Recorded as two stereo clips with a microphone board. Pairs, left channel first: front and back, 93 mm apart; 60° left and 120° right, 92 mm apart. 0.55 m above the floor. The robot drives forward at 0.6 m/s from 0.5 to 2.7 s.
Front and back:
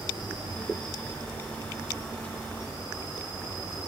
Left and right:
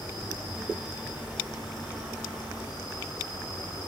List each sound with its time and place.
0.0 s an insect: 160° right, 3.5 m; by 3.9 s 165° right, 4.5 m